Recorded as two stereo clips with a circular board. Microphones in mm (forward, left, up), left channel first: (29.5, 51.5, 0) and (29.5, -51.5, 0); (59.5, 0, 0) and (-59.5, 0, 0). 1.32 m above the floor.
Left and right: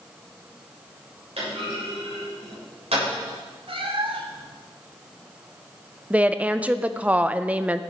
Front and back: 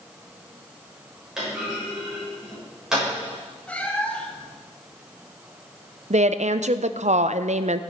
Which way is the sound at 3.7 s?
75° right.